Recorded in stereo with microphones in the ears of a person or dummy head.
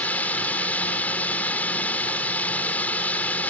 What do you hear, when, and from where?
0.0 s a drone: 5° left (ahead or behind)